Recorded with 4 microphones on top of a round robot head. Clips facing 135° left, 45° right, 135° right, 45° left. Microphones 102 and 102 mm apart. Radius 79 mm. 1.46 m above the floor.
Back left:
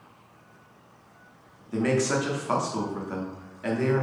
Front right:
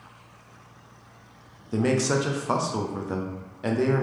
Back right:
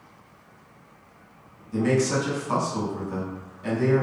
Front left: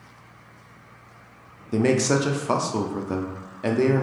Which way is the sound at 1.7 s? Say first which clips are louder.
Front right 1 dB, front left 2 dB; 20° left.